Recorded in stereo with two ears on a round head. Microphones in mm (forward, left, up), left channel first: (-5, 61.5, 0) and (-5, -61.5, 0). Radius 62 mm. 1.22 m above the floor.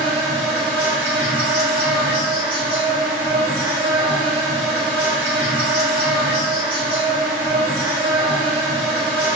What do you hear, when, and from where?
0.0 s an insect: 40° right (ahead or behind), 1.1 m